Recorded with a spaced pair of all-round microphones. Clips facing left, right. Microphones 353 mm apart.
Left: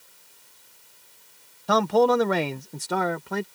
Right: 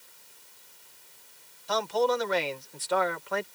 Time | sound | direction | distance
1.7 | a man speaking | 75° left (ahead or behind) | ?